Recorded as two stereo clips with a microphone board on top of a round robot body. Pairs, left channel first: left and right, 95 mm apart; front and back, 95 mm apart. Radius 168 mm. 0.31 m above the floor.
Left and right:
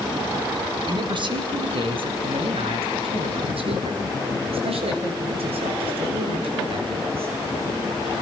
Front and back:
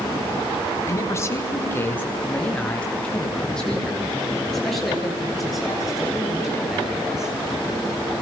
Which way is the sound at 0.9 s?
55° right.